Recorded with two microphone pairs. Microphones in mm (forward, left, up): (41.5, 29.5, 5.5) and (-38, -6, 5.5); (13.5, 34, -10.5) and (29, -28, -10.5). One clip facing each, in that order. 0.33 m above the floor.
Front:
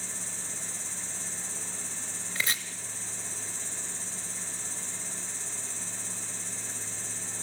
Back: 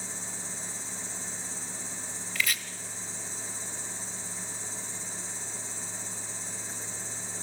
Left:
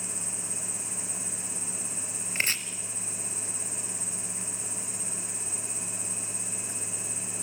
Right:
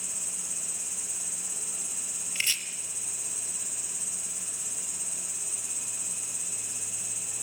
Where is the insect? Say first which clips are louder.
Back 2 dB, left 5 dB; 5° left, 10 m.